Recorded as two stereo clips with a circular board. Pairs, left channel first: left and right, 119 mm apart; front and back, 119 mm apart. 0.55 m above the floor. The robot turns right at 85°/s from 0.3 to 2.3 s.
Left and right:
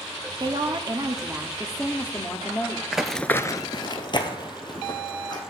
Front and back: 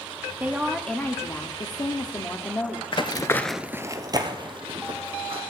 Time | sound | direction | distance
0.4 | a woman speaking | 115° right | 0.7 m
2.9 | running footsteps | 10° right | 0.7 m